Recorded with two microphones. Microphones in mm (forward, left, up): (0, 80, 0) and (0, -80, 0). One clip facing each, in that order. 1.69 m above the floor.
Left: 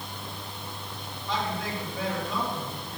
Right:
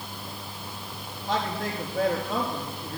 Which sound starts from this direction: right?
A man speaking, at 1.3 s.